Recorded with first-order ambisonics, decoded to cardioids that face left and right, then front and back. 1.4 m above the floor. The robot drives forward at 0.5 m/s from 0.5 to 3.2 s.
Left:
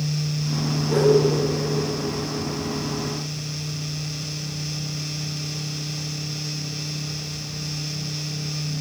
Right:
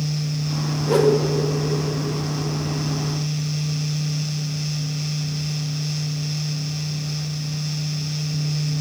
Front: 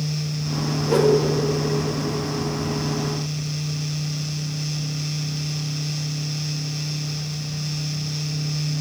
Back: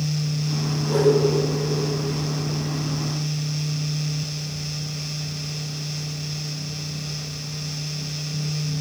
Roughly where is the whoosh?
Ahead right.